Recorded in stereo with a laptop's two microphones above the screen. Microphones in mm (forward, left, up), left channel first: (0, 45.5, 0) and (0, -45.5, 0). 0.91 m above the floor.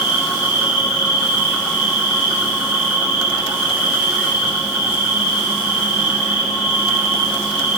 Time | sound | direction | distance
0.0 | an insect | 5° right (ahead or behind) | 4 m